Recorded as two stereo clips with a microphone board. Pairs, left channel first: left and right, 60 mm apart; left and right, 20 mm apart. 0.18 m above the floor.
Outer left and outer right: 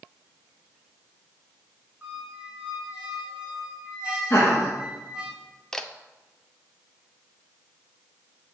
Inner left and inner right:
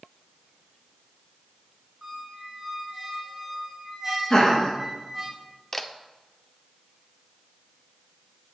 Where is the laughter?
30° left (ahead or behind), 3.5 m.